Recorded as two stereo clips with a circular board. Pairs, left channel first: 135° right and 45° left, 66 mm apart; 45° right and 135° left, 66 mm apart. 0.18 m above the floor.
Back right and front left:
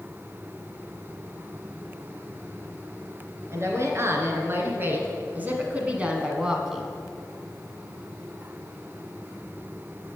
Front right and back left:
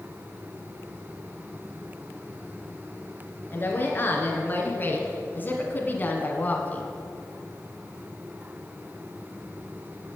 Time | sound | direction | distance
3.5 | a woman speaking | 10° left | 2.5 m